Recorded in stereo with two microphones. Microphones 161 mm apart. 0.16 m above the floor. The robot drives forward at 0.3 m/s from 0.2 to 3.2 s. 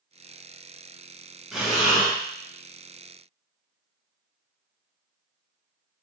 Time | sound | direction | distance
1.5 | breathing | centre (ahead or behind) | 1.3 m